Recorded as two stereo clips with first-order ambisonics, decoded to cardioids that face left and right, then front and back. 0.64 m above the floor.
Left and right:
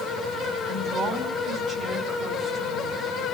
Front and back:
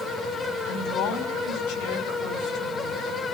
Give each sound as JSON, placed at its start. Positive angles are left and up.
{"t": 0.7, "sound": "a woman speaking", "azimuth_deg": -5, "distance_m": 4.5}